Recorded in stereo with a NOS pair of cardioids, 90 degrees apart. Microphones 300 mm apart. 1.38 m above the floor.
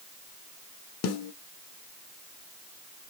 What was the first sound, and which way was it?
A snare drum, 55° left.